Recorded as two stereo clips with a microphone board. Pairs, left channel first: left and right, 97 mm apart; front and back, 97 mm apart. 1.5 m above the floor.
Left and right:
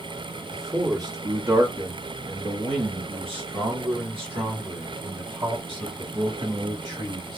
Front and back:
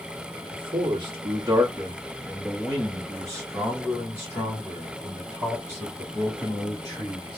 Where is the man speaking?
150° right, 1.1 m; by 7.4 s 50° right, 3 m.